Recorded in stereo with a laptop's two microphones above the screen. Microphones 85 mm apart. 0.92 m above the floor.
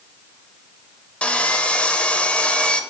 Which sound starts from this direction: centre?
Sawing, at 1.2 s.